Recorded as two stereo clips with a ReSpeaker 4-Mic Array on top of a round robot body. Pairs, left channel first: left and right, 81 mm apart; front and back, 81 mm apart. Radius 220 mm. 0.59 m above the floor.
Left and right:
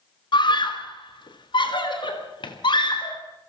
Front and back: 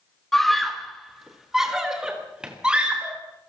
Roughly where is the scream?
Left.